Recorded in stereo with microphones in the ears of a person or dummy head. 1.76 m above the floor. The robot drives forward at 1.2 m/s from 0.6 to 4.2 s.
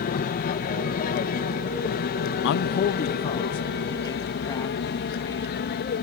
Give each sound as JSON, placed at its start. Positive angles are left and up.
{"t": 0.0, "sound": "an aircraft", "side_deg": 45}
{"t": 2.4, "sound": "a man speaking", "side_deg": 55}